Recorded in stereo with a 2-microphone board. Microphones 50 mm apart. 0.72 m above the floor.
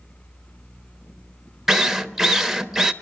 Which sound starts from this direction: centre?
A drill, at 1.7 s.